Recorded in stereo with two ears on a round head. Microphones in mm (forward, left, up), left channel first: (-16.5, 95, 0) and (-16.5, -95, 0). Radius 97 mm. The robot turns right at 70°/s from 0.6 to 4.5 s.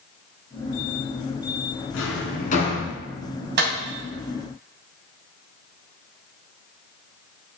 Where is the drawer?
80° left, 2.5 m; by 2.9 s 15° left (ahead or behind), 2.5 m.